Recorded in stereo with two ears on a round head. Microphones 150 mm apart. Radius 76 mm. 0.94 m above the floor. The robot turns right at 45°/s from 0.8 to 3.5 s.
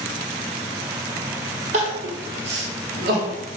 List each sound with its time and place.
1.7 s crying: 45° right (ahead or behind), 0.9 m; by 3.4 s 55° right (ahead or behind), 0.9 m